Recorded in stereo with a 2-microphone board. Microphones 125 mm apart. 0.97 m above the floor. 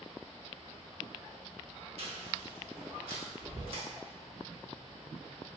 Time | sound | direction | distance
2.0 | chewing | 55° right (ahead or behind) | 0.9 m